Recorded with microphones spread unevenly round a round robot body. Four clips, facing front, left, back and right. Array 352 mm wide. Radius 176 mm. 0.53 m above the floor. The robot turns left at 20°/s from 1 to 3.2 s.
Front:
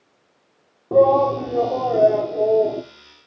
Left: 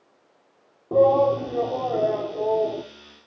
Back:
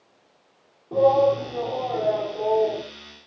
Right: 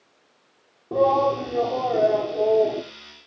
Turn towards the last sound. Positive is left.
turn(degrees=-35)